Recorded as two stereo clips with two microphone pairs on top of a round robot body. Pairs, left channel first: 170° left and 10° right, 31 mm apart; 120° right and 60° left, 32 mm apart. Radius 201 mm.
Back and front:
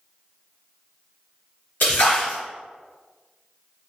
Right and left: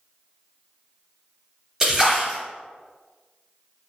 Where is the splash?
135° left, 0.5 m.